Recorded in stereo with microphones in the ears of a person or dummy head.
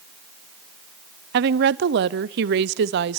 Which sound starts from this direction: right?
A woman speaking, at 1.3 s.